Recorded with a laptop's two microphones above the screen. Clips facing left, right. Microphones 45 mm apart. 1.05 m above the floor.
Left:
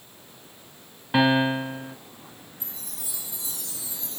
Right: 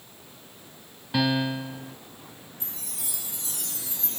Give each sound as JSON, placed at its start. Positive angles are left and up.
{"t": 1.1, "sound": "a piano", "side_deg": 30}
{"t": 2.6, "sound": "a chime", "side_deg": -65}